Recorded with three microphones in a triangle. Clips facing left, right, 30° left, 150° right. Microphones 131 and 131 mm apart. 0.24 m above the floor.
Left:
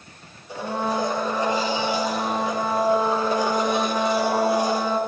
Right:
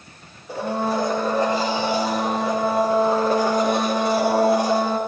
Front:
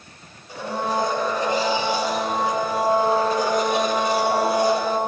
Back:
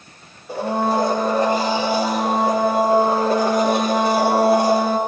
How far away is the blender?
About 6 m.